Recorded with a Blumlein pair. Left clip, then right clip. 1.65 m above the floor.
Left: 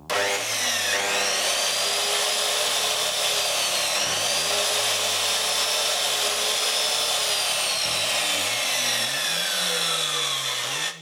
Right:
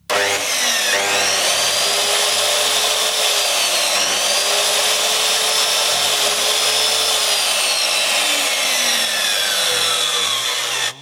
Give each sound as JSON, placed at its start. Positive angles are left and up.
{"t": 0.1, "sound": "sawing", "azimuth_deg": -20, "distance_m": 0.9}